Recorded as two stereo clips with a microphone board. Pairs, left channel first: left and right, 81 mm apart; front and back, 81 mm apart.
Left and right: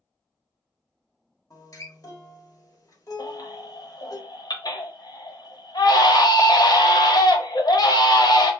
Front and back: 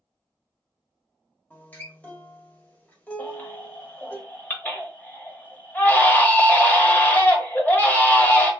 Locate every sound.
1.5 s a guitar: 65° left, 1.1 m
3.2 s a baby crying: 70° left, 0.9 m